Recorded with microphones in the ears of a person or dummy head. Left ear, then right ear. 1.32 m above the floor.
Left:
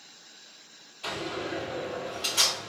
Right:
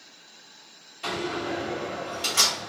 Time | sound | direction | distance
1.0 | a door slam | 25° right (ahead or behind) | 1.9 m